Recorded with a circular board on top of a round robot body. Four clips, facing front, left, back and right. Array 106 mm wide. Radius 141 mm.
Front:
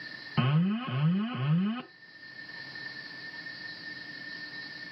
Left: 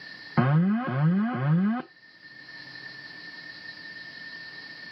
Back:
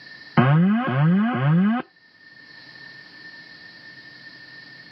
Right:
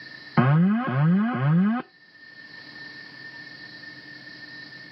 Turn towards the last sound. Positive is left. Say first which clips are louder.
# right 3 dB, back 11 dB
turn(degrees=-165)